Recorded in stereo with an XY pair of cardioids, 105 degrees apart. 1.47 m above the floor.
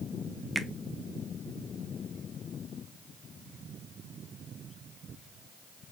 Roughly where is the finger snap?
Ahead.